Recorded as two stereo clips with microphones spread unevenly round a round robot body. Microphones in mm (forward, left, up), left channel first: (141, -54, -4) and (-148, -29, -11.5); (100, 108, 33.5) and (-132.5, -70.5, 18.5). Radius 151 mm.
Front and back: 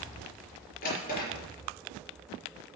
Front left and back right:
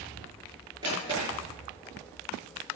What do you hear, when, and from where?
0.8 s a drawer: 65° right, 4.5 m